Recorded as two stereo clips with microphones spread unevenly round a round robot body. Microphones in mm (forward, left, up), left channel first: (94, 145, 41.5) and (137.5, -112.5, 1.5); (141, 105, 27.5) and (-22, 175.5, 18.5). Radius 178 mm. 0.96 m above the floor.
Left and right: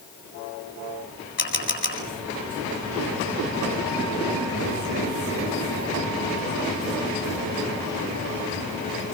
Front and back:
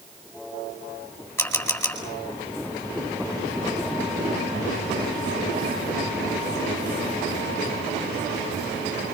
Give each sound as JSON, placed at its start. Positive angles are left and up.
{"t": 1.4, "sound": "a camera shutter", "azimuth_deg": 55, "distance_m": 9.0}